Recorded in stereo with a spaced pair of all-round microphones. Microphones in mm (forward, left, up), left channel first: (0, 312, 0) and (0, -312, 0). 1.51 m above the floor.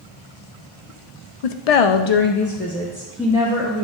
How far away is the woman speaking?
About 0.6 m.